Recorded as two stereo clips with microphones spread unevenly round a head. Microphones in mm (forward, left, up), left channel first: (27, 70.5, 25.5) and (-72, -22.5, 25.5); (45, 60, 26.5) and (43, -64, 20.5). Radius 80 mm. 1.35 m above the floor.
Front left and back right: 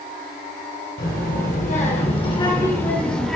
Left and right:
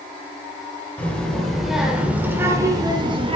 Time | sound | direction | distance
1.0 | a child speaking | 10° left | 4 m